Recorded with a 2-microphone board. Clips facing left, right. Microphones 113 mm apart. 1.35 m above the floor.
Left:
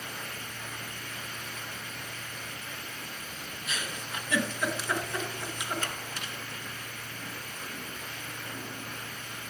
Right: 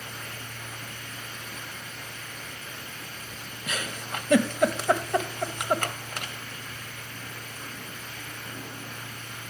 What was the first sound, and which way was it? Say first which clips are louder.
A giggle: right 5 dB; 55° right (ahead or behind).